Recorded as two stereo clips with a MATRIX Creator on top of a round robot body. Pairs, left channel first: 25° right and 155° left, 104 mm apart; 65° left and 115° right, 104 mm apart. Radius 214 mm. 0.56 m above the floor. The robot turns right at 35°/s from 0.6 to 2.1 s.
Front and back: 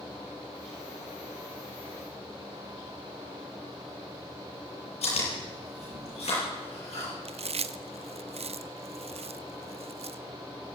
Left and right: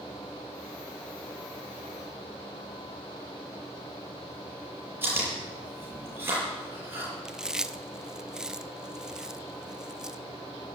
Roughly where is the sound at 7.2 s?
Behind.